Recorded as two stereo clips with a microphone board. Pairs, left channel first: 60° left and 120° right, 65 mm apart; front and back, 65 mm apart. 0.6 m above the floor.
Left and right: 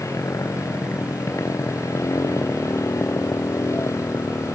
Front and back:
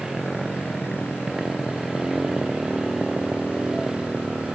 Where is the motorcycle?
95° left; by 4.5 s 100° left.